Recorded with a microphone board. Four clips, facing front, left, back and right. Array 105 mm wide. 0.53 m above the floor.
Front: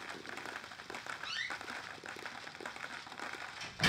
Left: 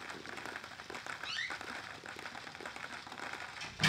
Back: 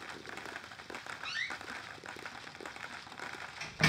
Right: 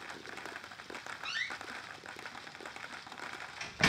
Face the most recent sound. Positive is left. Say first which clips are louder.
# right 2 dB, back 1 dB
turn(degrees=-120)